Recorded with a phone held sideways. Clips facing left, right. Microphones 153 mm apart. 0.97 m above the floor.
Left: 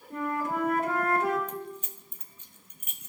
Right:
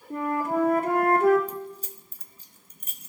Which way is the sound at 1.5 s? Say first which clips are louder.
Right 2 dB; 35° right (ahead or behind).